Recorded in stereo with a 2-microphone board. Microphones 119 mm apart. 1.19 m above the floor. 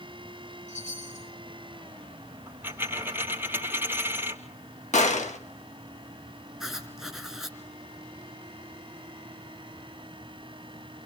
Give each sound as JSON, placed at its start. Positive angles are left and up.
{"t": 0.7, "sound": "a chime", "side_deg": 85, "distance_m": 6.5}
{"t": 2.5, "sound": "a dropped coin", "side_deg": -15, "distance_m": 1.7}
{"t": 4.9, "sound": "a gunshot", "side_deg": 75, "distance_m": 1.4}
{"t": 6.6, "sound": "writing", "side_deg": 0, "distance_m": 3.5}